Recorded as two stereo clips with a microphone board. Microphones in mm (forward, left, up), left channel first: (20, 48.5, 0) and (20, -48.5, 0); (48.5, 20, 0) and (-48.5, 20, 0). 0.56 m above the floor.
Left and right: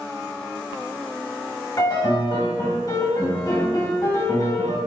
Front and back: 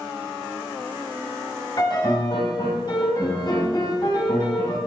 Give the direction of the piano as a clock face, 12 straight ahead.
11 o'clock.